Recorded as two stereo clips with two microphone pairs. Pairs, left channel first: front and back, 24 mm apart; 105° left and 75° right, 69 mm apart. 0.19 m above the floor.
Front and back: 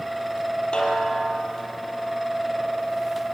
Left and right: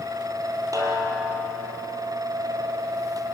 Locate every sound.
0.7 s a snare drum: 45° right, 4.5 m